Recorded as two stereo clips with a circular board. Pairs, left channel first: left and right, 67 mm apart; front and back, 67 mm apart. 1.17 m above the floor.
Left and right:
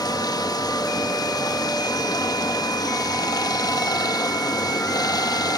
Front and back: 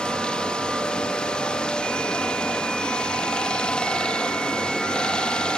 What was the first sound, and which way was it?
Running water, 75° left.